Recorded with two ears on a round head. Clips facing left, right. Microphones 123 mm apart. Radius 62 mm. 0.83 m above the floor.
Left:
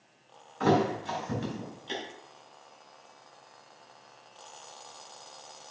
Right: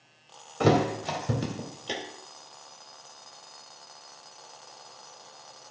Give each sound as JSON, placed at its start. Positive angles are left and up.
{"t": 0.6, "sound": "a thud", "side_deg": -75, "distance_m": 1.5}